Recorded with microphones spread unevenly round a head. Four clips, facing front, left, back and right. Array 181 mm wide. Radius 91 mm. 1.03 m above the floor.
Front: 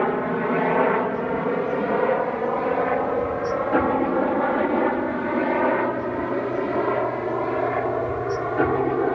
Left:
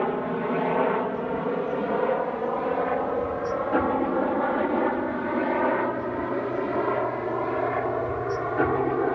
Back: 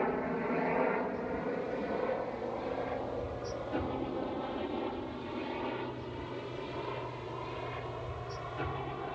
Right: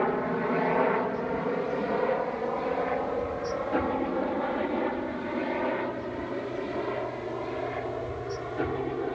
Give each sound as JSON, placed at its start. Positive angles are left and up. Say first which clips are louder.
{"t": 0.0, "sound": "a helicopter", "louder": "left 1 dB, front 10 dB", "azimuth_deg": 5}